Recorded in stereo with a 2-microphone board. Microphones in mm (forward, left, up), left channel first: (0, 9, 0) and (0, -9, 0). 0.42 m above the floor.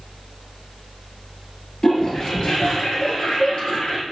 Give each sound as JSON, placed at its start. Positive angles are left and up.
{"t": 1.8, "sound": "a toilet flushing", "side_deg": 50, "distance_m": 2.0}